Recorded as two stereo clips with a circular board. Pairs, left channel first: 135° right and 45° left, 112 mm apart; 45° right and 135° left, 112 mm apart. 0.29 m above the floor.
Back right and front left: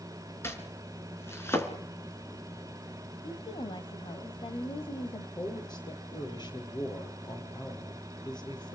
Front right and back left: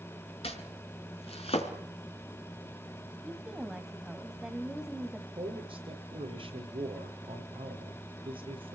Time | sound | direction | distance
0.4 | chopping | 65° right | 4 m
3.2 | a woman speaking | 140° right | 1.8 m
5.4 | a man speaking | 175° left | 8 m